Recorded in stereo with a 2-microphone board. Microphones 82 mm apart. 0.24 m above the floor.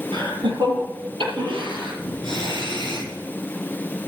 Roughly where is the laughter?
Right.